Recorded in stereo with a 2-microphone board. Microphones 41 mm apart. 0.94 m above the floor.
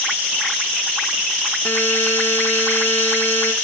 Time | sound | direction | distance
1.6 | a buzzer | 55° left (ahead or behind) | 2.5 m